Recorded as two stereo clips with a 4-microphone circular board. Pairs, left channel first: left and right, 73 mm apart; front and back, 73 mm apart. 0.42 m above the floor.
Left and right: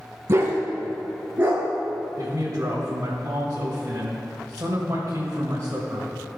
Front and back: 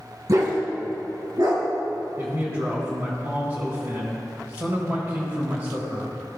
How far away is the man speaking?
About 1.6 m.